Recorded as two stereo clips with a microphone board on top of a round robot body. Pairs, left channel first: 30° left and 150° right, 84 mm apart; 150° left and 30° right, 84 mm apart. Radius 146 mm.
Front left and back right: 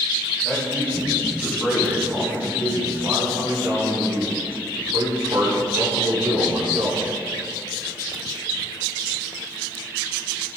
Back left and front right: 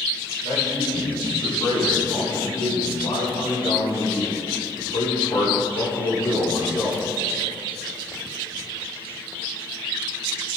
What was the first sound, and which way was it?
A man speaking, 120° left.